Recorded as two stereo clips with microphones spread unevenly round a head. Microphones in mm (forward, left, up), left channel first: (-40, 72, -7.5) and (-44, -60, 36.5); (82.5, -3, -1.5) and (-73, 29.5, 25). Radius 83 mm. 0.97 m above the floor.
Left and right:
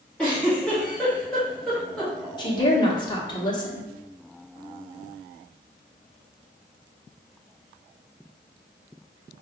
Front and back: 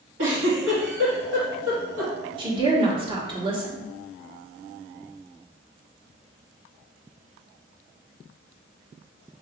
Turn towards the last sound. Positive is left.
turn(degrees=110)